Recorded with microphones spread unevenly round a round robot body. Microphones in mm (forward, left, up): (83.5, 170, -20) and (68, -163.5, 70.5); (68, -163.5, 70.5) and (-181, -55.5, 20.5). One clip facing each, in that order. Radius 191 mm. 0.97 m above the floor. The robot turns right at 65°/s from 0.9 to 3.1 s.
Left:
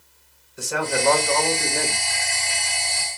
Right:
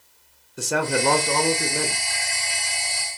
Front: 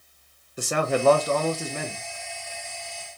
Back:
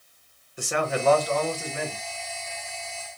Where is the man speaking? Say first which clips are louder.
Right 2 dB, front 3 dB; 55° right, 0.6 m; by 2.0 s 20° left, 0.6 m.